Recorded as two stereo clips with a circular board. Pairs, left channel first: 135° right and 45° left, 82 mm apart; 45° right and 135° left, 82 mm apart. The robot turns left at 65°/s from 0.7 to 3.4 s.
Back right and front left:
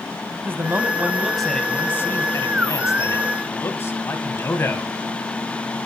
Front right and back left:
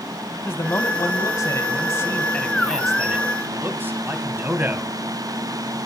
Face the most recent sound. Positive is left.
turn(degrees=-175)